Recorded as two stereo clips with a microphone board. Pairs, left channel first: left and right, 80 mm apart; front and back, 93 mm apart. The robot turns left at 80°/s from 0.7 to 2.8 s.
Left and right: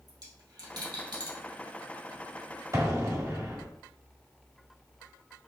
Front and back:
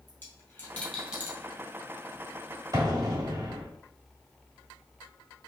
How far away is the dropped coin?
About 2.0 m.